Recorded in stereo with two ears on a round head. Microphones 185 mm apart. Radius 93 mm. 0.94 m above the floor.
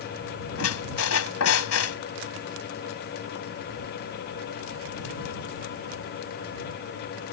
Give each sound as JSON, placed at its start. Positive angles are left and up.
{"t": 0.6, "sound": "a squeak", "side_deg": 80}